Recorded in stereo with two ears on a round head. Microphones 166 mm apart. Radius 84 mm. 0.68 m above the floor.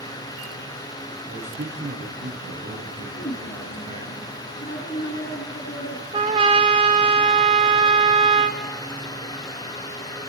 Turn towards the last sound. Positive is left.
turn(degrees=-30)  # may be behind; listen again after turning